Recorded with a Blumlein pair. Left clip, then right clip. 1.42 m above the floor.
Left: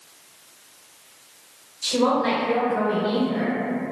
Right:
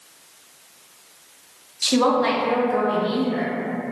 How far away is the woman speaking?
About 0.9 m.